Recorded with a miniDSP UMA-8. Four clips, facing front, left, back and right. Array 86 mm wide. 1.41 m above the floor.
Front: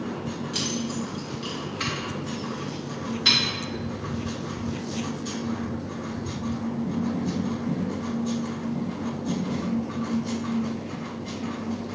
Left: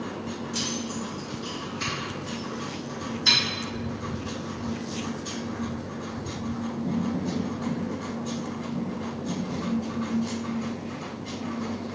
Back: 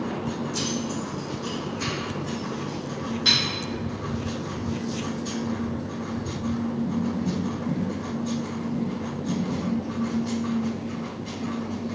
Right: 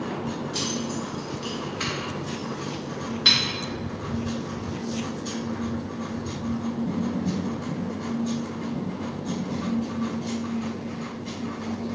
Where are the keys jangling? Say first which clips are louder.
Right 2 dB, back 1 dB; 20° right, 1.6 m; by 3.4 s 90° right, 1.4 m.